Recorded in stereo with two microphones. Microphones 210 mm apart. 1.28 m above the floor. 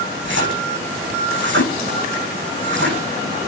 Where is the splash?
65° right (ahead or behind), 9.5 m.